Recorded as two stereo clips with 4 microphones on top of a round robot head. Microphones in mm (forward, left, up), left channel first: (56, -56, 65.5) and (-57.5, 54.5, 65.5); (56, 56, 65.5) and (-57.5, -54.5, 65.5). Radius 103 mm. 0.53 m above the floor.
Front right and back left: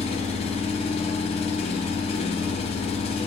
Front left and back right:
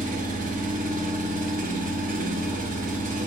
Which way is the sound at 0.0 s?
100° right.